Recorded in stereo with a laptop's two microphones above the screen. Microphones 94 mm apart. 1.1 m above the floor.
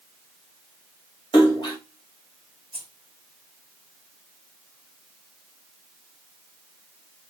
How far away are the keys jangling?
About 1.6 m.